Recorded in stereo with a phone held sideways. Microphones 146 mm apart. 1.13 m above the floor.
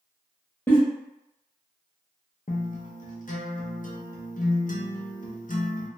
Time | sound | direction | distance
0.7 | a giggle | 15° left (ahead or behind) | 0.8 m
2.5 | a guitar | 65° left (ahead or behind) | 0.5 m